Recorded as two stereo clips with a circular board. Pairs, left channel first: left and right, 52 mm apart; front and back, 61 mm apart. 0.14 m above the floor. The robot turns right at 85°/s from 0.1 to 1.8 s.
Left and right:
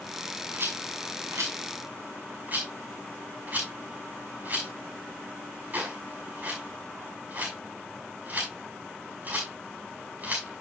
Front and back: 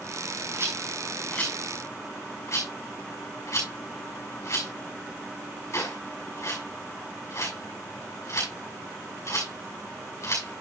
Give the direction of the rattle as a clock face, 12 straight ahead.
5 o'clock.